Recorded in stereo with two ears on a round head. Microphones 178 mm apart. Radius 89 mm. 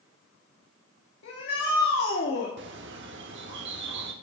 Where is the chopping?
No chopping in this recording.